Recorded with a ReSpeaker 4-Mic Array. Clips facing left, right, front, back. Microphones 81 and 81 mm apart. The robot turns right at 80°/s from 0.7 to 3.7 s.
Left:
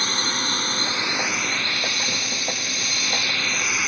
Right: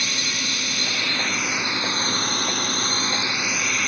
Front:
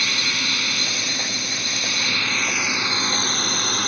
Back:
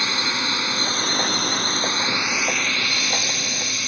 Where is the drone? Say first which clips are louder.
Left 3 dB, back 2 dB; 125° left; by 3.9 s 5° left.